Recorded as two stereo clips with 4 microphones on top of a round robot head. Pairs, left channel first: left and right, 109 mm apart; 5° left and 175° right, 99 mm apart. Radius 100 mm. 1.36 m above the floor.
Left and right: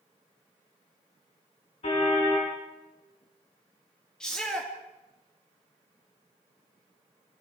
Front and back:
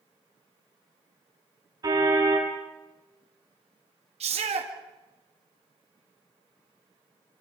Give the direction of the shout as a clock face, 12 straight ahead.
6 o'clock.